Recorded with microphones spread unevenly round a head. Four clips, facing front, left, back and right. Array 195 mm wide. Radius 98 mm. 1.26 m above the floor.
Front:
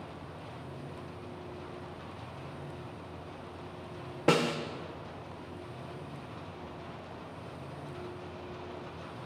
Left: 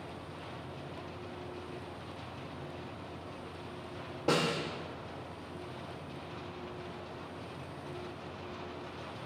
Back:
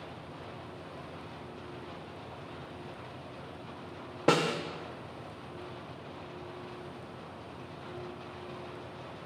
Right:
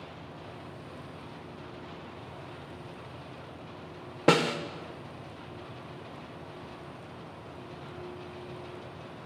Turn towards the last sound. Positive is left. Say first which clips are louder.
# right 6 dB, even
turn(degrees=-95)